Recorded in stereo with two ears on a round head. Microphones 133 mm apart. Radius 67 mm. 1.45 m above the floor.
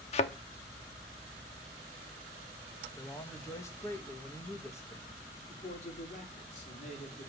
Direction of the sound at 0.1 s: 45° left (ahead or behind).